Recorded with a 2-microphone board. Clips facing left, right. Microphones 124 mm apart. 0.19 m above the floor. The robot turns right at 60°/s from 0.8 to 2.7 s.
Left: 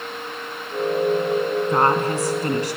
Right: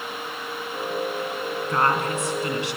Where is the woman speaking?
35° left, 2 m; by 2.8 s 100° left, 2 m.